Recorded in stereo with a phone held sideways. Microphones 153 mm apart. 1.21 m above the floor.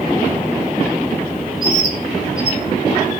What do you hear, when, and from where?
1.6 s a bird: 75° right (ahead or behind), 1.8 m